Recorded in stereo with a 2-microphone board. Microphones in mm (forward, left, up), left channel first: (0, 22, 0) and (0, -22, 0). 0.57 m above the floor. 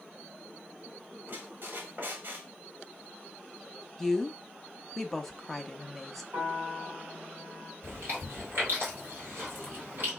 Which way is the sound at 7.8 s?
50° right (ahead or behind).